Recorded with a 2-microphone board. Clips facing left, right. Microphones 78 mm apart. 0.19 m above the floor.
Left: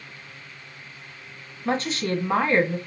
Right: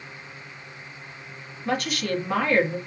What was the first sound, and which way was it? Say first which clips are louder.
A woman speaking: left 1 dB; 30° left (ahead or behind).